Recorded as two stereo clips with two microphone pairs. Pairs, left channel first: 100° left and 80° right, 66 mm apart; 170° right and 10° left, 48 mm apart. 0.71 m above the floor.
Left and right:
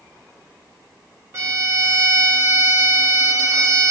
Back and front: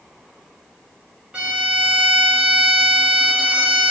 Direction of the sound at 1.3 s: 55° right.